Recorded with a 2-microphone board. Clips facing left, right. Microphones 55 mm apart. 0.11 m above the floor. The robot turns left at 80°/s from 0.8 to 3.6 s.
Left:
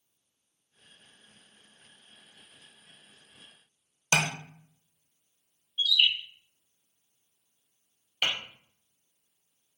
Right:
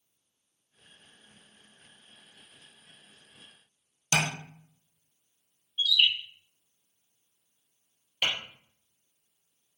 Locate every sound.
4.1 s tapping: 35° left (ahead or behind), 0.7 m
5.8 s a bird: 20° right (ahead or behind), 1.8 m
8.2 s tapping: 5° left (ahead or behind), 1.8 m